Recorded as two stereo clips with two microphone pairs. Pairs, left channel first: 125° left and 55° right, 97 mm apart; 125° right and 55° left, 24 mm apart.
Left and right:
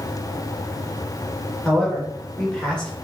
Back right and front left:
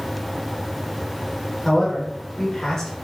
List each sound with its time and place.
1.6 s a man speaking: 165° right, 0.8 m